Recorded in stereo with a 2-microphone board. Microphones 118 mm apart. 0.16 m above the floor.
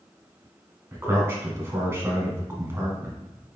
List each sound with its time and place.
0.9 s a man speaking: 20° right (ahead or behind), 1.3 m